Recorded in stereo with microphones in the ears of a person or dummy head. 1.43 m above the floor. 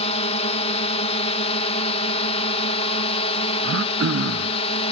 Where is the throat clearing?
80° right.